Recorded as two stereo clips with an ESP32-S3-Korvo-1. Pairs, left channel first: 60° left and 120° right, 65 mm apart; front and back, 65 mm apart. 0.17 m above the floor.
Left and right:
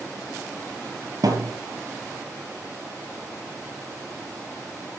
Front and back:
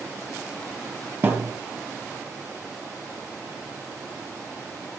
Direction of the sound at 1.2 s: 125° right.